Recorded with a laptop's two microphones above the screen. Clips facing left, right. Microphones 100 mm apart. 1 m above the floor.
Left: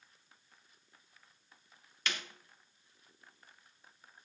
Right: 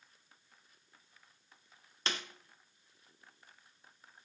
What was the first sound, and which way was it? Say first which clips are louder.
A snare drum: right 1 dB; 30° right (ahead or behind).